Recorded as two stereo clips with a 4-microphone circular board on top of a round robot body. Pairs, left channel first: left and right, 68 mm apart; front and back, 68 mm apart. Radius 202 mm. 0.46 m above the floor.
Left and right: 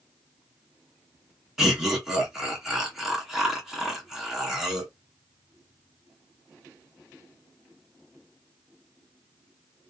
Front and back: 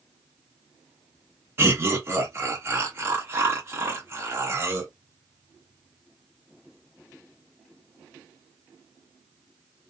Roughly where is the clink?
I don't hear a clink.